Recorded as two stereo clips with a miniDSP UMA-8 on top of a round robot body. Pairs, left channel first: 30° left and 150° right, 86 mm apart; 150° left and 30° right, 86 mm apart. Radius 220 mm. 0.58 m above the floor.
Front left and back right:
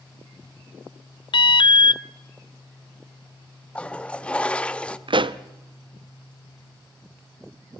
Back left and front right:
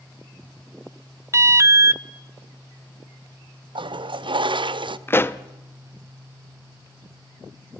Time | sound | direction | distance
1.3 | an alarm | 25° left | 0.7 m
3.8 | a toilet flushing | 45° right | 0.9 m
5.1 | a pop | 150° right | 0.9 m